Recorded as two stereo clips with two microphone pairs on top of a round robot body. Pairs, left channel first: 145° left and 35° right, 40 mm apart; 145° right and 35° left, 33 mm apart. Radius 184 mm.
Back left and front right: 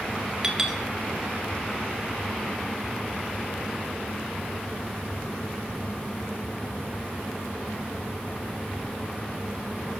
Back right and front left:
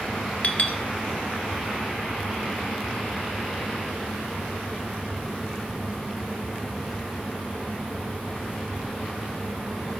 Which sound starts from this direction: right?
A clink, at 0.4 s.